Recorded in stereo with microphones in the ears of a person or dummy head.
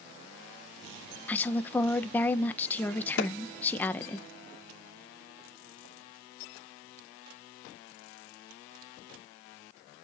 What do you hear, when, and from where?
1.3 s a woman speaking: 10° left (ahead or behind), 0.9 m
3.2 s a clap: 75° left (ahead or behind), 3 m